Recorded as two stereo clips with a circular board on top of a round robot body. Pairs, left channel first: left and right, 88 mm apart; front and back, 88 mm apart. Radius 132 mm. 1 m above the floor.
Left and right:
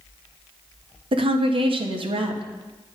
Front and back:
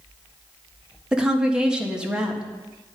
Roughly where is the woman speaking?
Right.